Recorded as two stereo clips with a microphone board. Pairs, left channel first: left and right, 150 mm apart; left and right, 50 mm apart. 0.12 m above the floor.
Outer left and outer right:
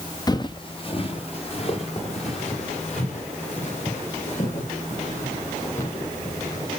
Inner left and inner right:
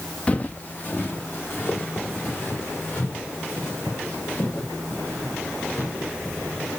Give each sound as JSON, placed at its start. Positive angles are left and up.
{"t": 0.3, "sound": "footsteps", "side_deg": 25, "distance_m": 0.7}